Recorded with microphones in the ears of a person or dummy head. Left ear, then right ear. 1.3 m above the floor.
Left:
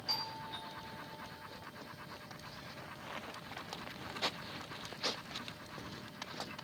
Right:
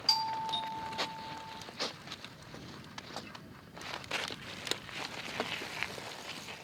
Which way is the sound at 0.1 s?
40° right (ahead or behind).